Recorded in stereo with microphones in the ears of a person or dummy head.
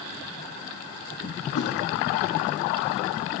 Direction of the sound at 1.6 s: 80° left.